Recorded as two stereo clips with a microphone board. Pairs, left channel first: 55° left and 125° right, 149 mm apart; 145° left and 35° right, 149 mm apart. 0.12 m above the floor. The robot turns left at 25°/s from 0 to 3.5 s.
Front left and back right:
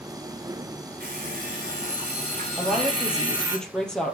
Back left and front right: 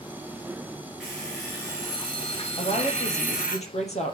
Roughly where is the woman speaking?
Behind.